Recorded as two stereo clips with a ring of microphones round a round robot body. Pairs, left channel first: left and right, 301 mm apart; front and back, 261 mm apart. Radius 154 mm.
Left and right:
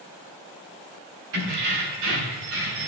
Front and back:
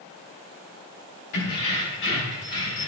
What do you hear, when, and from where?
1.3 s keys jangling: 50° right, 4 m; by 2.9 s 60° right, 5 m